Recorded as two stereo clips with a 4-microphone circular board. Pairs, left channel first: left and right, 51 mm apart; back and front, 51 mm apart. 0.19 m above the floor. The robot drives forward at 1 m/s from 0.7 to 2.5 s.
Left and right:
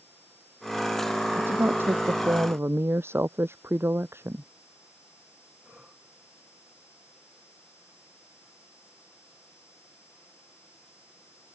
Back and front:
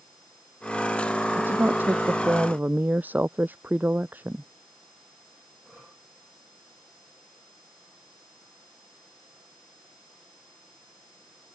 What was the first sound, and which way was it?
A woman speaking, 45° right.